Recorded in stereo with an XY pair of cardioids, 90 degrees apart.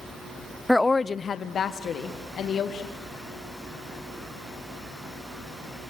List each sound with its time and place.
0.7 s a woman speaking: 5° left, 0.5 m; by 2.9 s 80° left, 2.5 m